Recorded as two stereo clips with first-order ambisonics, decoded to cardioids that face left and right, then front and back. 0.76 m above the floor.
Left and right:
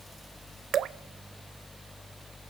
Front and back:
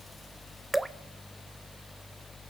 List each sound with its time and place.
0.7 s dripping: 100° right, 0.5 m